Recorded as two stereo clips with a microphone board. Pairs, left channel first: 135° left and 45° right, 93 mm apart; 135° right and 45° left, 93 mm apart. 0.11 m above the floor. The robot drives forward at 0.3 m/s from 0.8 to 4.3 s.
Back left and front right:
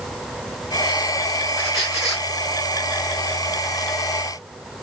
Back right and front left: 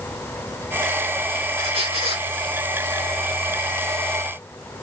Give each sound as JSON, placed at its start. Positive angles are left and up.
{"t": 1.6, "sound": "a squeak", "azimuth_deg": 40, "distance_m": 1.8}